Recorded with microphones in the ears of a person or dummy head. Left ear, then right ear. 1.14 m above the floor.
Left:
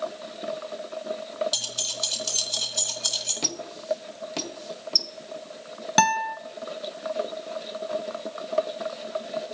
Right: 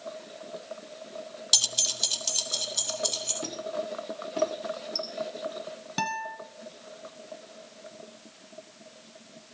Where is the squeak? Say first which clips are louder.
Left 5 dB; 40° left (ahead or behind), 1.4 m.